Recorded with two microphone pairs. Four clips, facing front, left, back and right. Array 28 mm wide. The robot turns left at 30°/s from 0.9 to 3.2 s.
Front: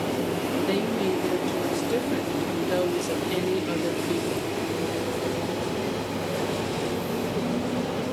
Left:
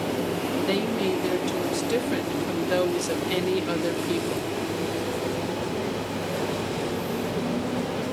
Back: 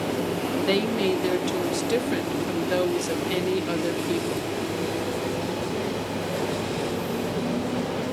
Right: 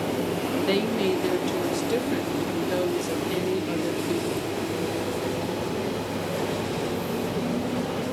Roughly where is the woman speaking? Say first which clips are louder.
Right 2 dB, back 4 dB; behind.